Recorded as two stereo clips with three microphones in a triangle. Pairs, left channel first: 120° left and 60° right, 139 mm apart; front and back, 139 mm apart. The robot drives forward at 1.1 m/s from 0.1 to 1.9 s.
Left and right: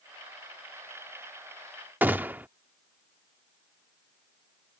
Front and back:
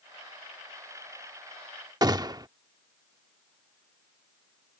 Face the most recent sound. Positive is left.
turn(degrees=-130)